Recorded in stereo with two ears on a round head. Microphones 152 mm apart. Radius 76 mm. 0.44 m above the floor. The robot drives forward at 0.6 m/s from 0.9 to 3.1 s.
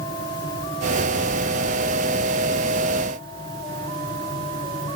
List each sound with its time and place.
Only background noise.